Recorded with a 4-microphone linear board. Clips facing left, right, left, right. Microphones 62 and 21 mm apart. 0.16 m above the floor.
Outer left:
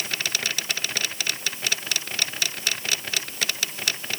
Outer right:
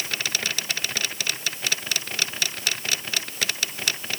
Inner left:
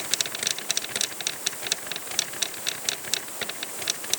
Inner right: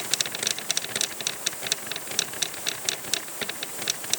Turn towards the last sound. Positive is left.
No sound to turn to.